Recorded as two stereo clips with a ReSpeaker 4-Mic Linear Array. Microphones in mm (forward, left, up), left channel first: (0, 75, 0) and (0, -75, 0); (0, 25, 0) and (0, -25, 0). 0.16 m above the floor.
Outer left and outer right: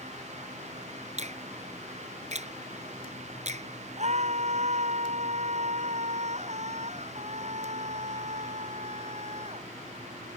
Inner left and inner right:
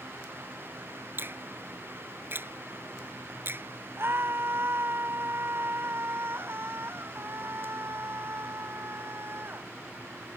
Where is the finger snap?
50° right (ahead or behind).